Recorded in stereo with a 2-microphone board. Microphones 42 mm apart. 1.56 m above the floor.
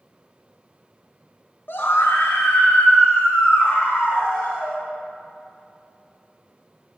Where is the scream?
55° left (ahead or behind), 1.0 m; by 4.8 s 85° left, 4 m.